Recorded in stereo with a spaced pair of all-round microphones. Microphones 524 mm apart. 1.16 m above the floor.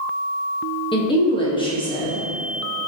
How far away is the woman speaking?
About 1.1 m.